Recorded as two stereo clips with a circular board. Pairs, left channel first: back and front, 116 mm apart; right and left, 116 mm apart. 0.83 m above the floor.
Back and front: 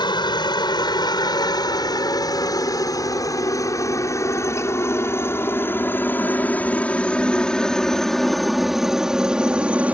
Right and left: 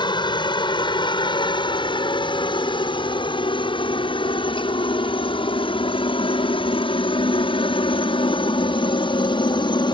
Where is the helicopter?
135° right; by 9.9 s 75° right.